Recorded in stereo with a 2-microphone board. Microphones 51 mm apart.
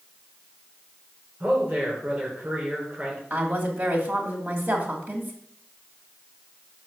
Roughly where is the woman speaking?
Right.